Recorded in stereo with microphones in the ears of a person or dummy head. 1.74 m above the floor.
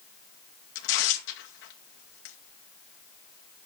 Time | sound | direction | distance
0.8 | tearing paper | 70° left (ahead or behind) | 2 m